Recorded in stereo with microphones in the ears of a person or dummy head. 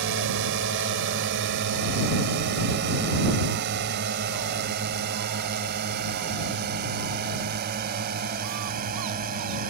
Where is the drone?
65° right (ahead or behind); by 9.7 s 45° right (ahead or behind).